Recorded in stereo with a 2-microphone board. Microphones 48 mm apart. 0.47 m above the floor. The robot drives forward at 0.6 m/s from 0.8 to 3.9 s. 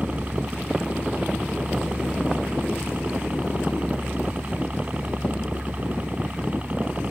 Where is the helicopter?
30° right (ahead or behind); by 7.1 s 35° right (ahead or behind).